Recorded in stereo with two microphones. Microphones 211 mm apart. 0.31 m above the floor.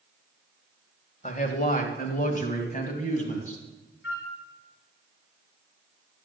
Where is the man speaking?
40° left (ahead or behind), 1.8 m; by 3.6 s 35° left (ahead or behind), 3 m.